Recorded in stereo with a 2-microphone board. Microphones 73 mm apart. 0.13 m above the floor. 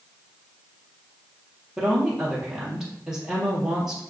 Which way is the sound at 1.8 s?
10° right (ahead or behind).